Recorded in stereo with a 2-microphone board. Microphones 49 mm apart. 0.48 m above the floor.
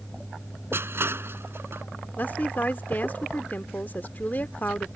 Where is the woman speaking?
40° left (ahead or behind).